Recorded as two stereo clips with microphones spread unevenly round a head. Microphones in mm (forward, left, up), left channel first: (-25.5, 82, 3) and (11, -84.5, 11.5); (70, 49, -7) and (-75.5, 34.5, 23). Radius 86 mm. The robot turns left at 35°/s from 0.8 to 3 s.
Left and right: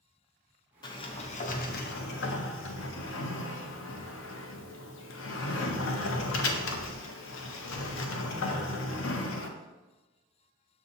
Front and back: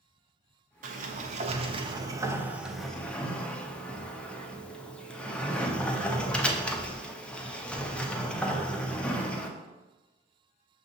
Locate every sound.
0.8 s a sliding door: 170° left, 0.5 m; by 9.6 s 95° left, 0.5 m